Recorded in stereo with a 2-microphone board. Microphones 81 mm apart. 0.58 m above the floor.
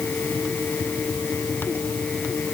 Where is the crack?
I don't hear a crack.